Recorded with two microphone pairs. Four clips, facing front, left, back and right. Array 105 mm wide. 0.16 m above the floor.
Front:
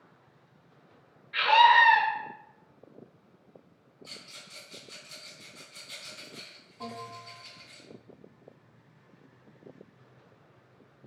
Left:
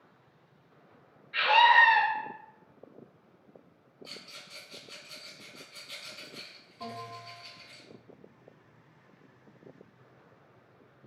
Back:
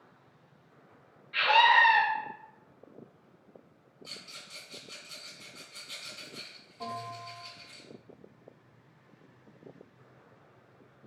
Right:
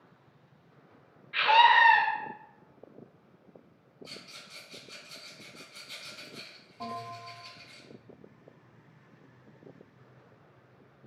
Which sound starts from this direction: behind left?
A rattle, at 4.0 s.